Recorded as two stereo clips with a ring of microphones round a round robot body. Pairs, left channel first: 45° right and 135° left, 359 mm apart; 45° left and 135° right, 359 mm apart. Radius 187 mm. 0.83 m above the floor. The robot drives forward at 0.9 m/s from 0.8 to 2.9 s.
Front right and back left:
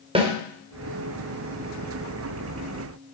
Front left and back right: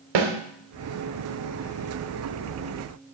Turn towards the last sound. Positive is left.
turn(degrees=-165)